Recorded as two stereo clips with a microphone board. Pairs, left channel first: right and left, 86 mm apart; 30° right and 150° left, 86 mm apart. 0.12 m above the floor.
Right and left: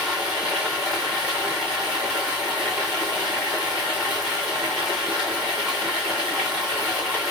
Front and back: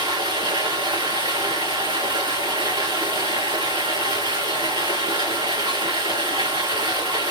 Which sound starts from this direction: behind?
Running water, at 0.0 s.